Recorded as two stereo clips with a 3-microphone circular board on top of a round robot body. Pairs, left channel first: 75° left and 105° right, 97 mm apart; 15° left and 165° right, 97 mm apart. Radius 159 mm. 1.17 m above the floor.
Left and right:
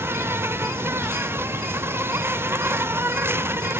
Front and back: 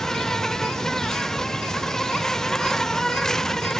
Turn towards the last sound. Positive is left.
turn(degrees=-65)